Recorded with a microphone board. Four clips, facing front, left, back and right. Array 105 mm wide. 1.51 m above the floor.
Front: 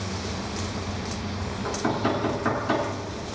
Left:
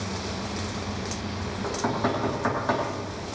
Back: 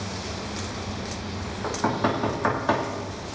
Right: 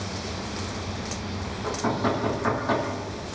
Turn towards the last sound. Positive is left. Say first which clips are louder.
# right 1 dB, back 1 dB
turn(degrees=170)